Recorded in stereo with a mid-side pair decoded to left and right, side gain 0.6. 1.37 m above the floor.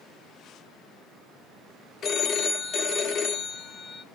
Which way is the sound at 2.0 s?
45° left.